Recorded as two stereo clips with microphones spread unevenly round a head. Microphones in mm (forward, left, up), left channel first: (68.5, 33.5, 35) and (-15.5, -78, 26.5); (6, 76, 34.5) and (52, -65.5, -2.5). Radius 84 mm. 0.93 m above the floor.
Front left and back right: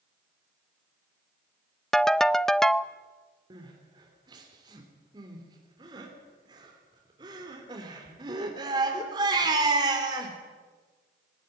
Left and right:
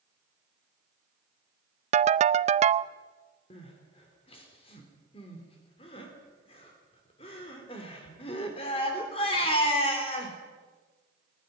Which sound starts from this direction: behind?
Crying, at 3.5 s.